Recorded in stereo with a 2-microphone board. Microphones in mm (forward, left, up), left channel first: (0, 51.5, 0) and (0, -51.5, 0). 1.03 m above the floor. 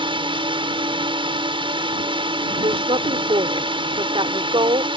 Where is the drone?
55° right (ahead or behind).